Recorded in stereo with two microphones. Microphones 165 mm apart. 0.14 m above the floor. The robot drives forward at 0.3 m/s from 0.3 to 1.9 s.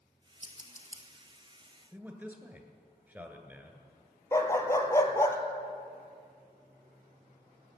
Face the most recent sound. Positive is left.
turn(degrees=15)  # may be behind; listen again after turning